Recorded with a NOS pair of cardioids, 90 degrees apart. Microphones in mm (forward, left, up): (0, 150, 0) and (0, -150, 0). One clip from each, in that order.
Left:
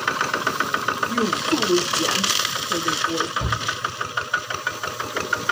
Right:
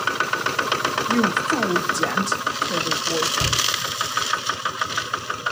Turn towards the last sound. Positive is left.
turn(degrees=-5)